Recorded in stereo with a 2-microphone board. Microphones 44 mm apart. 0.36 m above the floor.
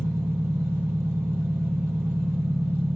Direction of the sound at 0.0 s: 70° right (ahead or behind).